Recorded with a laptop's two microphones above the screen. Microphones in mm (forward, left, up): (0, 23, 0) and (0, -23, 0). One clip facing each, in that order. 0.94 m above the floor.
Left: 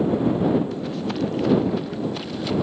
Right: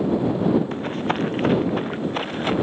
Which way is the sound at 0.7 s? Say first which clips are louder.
Right 2 dB; 45° right (ahead or behind).